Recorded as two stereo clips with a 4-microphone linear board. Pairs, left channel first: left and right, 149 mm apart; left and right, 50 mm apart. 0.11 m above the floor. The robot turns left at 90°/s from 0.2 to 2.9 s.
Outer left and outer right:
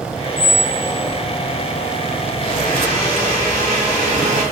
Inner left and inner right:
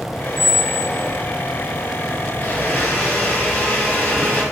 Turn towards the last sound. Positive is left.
turn(degrees=60)